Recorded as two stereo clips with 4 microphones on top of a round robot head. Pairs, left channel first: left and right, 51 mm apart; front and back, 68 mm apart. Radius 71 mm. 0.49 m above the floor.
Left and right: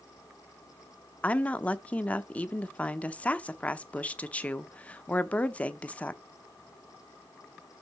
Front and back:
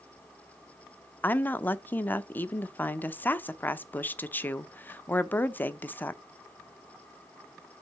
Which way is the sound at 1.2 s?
40° left.